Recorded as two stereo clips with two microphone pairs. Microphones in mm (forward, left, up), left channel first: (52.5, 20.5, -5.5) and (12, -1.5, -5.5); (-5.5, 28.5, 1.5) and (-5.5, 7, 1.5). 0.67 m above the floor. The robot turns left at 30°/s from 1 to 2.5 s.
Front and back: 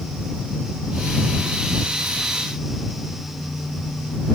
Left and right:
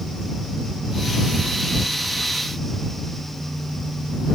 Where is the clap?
No clap in this recording.